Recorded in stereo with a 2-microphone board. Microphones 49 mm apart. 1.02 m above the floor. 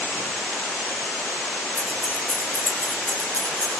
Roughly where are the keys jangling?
Left.